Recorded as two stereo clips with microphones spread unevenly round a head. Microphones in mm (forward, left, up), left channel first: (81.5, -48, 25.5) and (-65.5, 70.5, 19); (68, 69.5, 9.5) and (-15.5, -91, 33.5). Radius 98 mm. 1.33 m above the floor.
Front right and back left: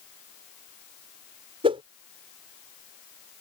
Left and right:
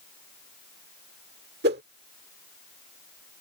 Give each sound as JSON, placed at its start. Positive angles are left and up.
{"t": 1.6, "sound": "a whoosh", "azimuth_deg": -155}